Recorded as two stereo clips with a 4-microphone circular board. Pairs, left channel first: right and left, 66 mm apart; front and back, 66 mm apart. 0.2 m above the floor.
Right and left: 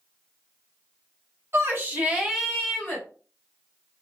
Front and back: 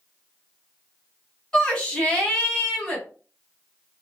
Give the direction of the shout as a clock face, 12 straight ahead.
10 o'clock.